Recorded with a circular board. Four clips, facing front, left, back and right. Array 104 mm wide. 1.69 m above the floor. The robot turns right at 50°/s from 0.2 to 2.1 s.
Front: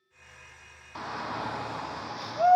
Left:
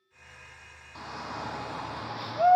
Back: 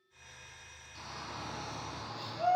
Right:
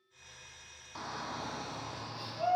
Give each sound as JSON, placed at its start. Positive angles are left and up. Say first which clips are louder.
{"t": 0.9, "sound": "a shout", "louder": "left 2 dB, front 10 dB", "azimuth_deg": -5, "distance_m": 0.9}